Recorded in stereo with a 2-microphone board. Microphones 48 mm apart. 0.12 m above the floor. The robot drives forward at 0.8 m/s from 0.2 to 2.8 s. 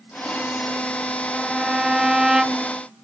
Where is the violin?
10° right (ahead or behind).